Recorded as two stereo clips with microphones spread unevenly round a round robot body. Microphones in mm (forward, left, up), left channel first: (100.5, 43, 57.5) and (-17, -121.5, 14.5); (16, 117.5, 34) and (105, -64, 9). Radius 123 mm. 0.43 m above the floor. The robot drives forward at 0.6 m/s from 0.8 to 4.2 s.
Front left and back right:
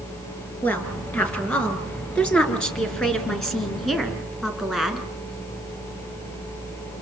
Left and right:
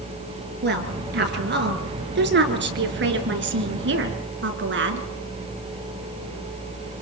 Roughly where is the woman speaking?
Ahead right.